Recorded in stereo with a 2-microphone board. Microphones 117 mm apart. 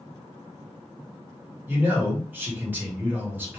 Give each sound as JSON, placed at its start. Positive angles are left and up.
{"t": 1.7, "sound": "a man speaking", "side_deg": -15, "distance_m": 1.4}